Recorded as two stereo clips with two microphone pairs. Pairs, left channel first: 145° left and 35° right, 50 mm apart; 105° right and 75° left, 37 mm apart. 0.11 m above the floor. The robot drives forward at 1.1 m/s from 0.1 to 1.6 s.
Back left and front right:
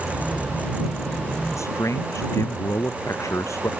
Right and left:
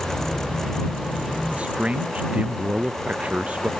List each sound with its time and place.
1.5 s a man speaking: 130° left